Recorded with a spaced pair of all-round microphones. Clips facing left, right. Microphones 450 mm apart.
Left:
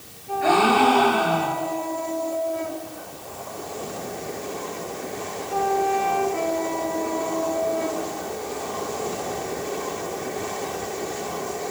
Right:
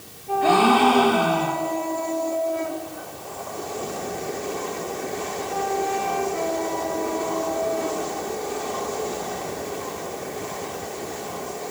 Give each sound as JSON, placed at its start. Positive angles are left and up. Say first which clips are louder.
{"t": 0.4, "sound": "a gasp", "louder": "right 1 dB", "side_deg": -50, "distance_m": 2.0}